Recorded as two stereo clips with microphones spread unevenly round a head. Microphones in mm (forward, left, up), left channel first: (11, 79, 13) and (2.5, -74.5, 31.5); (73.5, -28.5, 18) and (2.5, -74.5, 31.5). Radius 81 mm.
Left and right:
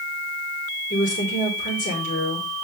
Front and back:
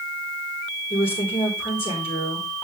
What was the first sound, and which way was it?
A woman speaking, 50° left.